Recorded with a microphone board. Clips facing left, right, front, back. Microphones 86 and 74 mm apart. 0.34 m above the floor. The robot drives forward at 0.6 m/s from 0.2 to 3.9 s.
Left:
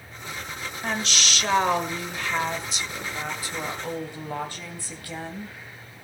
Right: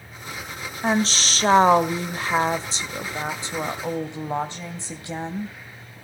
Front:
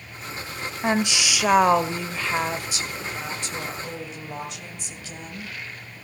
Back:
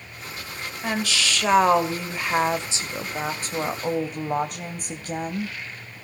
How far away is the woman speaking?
About 1.3 m.